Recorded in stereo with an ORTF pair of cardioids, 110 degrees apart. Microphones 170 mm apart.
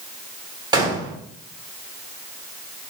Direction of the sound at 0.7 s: 25° right.